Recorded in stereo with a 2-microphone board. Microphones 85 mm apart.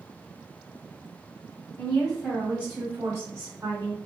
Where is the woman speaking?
10° left (ahead or behind), 1.2 m; by 4.0 s 45° right (ahead or behind), 1.7 m.